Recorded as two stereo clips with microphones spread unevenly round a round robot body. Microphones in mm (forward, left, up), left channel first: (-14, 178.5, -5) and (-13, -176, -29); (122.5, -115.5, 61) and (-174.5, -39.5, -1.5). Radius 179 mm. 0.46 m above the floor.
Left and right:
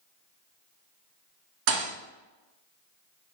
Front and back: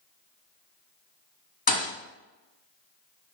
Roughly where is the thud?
Right.